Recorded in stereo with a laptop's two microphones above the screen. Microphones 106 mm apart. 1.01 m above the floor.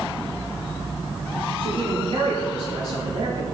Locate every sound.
1.6 s a man speaking: 75° right (ahead or behind), 4 m; by 3.4 s 65° right (ahead or behind), 3 m